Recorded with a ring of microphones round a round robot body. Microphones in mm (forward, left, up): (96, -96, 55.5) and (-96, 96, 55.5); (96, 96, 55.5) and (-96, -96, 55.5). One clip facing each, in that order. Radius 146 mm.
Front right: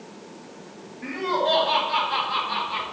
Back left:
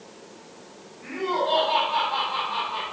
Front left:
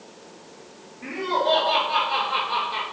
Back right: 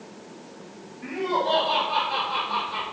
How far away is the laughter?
About 5 m.